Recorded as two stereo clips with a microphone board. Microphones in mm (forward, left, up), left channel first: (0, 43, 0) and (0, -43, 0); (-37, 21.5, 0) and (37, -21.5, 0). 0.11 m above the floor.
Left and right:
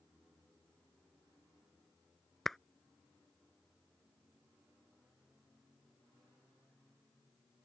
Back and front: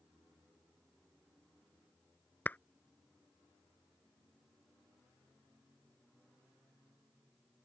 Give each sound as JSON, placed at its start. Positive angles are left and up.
{"t": 2.5, "sound": "a clap", "azimuth_deg": 170}